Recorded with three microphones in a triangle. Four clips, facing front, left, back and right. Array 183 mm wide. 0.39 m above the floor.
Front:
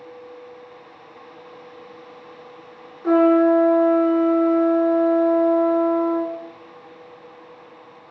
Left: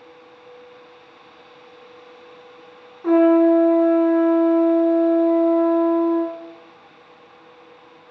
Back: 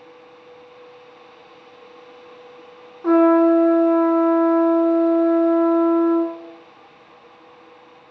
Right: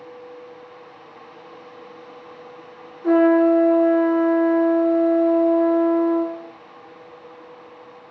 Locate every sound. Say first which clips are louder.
3.0 s a trumpet: left 1 dB, back 1 dB; 155° left, 3.5 m